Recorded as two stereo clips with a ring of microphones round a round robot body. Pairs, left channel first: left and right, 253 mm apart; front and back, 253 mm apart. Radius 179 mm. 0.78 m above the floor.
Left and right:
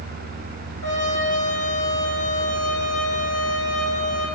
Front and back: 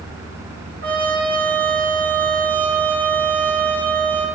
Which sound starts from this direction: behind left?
A trumpet, at 0.8 s.